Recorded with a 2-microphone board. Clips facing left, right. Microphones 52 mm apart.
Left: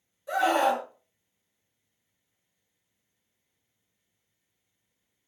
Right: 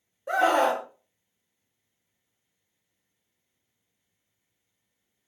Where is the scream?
50° right (ahead or behind), 1.1 m.